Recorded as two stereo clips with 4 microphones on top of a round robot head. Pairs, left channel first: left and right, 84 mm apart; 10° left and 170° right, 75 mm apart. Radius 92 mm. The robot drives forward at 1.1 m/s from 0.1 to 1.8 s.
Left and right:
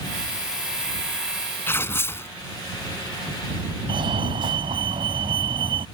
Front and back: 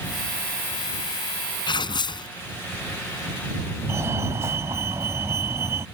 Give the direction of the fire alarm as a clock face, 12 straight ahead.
4 o'clock.